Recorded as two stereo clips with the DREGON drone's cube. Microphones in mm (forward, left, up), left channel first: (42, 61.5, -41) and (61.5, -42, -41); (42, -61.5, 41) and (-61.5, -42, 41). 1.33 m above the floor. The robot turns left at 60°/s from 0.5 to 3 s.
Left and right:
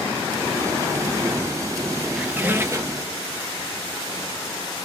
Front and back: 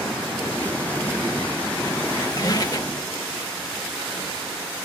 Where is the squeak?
5° left, 0.8 m; by 3.1 s 50° right, 0.8 m.